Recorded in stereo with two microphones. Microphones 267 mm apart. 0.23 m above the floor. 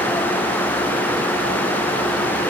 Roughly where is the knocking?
No knocking in this recording.